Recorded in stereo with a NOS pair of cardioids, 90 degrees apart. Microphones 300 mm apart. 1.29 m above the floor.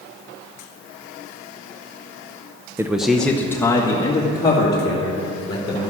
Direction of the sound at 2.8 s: 10° right.